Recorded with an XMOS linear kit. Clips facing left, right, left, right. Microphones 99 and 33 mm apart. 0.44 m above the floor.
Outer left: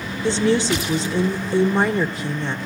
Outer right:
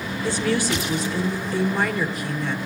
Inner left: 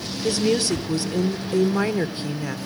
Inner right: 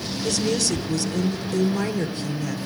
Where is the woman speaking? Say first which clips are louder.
Outer left 5 dB, inner left 3 dB; 25° left (ahead or behind), 0.9 m.